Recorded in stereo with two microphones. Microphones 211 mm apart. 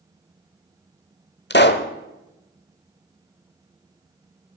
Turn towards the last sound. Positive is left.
turn(degrees=55)  # may be behind; listen again after turning